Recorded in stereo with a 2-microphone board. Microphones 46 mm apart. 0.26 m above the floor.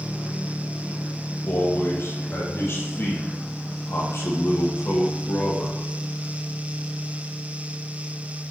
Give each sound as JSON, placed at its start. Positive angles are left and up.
{"t": 1.5, "sound": "a man speaking", "side_deg": 60, "distance_m": 7.5}